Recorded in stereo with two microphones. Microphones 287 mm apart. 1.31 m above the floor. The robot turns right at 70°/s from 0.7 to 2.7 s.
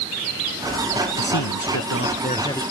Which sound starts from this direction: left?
A man speaking, at 1.2 s.